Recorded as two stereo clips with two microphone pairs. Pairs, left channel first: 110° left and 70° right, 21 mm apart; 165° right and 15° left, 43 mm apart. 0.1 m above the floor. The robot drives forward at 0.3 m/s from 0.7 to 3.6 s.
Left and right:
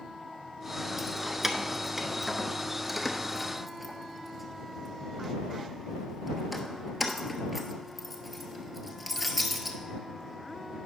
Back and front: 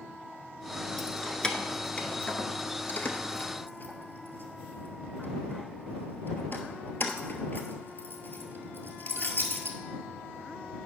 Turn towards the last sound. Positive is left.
turn(degrees=-165)